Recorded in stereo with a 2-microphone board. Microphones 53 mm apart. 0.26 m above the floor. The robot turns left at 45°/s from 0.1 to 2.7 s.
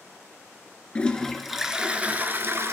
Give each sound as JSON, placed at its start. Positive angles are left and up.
{"t": 0.9, "sound": "a toilet flushing", "azimuth_deg": 20, "distance_m": 0.5}